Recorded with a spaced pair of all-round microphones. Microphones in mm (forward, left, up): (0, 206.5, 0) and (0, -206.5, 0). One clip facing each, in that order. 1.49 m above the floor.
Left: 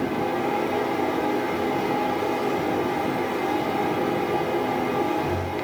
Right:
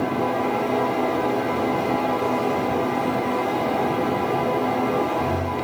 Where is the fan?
65° right (ahead or behind), 0.9 m.